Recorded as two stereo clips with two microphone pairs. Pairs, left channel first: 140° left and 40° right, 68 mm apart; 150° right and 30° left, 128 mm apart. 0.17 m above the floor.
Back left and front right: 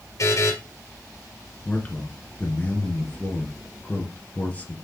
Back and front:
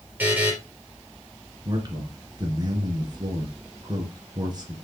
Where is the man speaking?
80° left, 3 m.